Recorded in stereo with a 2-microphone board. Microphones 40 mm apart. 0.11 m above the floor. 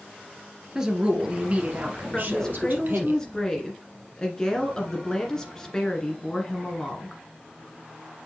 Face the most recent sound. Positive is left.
turn(degrees=15)  # may be behind; listen again after turning